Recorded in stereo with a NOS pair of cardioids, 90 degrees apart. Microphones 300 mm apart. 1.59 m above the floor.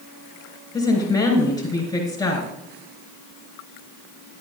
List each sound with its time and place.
0.7 s a woman speaking: 10° left, 3.5 m